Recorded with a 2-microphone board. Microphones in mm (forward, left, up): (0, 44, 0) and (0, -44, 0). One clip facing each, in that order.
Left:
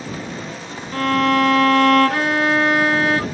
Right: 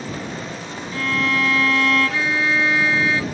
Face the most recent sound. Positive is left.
turn(degrees=55)  # may be behind; listen again after turning